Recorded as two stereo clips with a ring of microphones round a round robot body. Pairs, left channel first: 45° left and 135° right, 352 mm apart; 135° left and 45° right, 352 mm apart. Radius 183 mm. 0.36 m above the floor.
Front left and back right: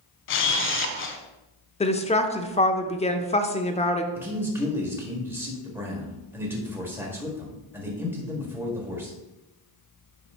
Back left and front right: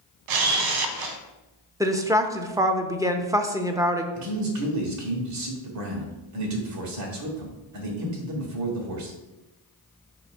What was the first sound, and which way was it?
A camera shutter, 15° right.